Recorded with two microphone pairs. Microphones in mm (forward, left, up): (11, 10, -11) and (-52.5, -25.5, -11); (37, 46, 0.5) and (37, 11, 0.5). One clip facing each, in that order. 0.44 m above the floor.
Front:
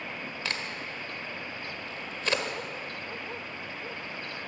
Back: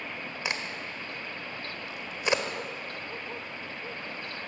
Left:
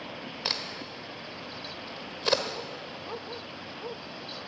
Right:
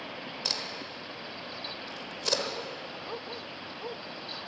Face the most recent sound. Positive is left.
turn(degrees=145)